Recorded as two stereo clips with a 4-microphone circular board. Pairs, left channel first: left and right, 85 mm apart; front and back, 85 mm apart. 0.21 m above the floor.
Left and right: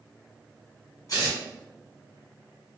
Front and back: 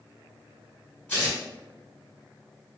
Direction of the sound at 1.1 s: 65° left.